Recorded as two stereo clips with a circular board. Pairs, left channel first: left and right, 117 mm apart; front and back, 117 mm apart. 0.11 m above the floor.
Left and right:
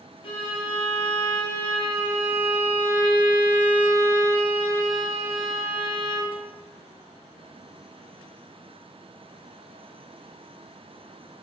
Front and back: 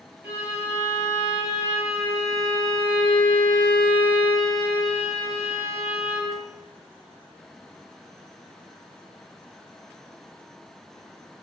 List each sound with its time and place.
0.2 s a violin: 110° left, 1.2 m